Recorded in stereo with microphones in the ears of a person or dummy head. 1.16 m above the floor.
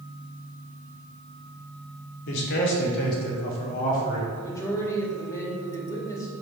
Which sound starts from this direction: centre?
A woman speaking, at 4.3 s.